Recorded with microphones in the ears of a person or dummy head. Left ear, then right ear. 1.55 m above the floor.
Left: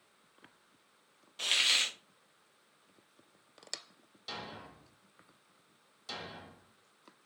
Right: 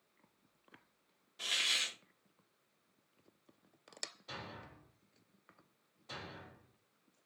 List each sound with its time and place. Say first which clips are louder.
1.4 s a hiss: left 5 dB; 35° left (ahead or behind), 0.6 m
4.3 s a thud: left 4 dB; 60° left (ahead or behind), 1.9 m